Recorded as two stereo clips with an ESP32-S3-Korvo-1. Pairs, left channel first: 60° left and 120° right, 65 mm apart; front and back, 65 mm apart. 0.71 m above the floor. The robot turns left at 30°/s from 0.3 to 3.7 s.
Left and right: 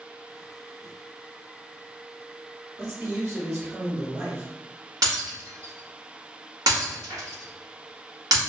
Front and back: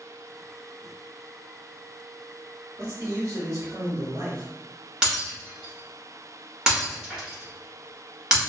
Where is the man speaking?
150° right, 1.4 m; by 4.5 s 175° right, 1.4 m.